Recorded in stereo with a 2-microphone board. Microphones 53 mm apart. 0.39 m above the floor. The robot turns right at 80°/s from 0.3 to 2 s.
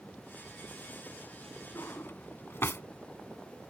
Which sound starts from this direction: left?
A drawer, at 1.8 s.